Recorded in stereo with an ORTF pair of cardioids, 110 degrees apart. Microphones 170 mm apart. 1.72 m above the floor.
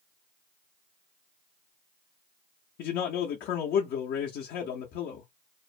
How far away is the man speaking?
About 0.7 m.